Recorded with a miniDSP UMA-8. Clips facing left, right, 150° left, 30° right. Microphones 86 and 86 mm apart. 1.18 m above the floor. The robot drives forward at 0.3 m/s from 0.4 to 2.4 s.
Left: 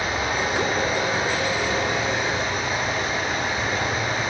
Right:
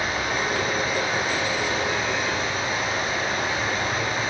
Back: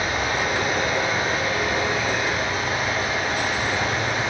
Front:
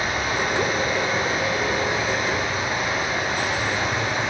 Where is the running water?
110° left, 1.9 m; by 4.3 s 130° left, 2 m.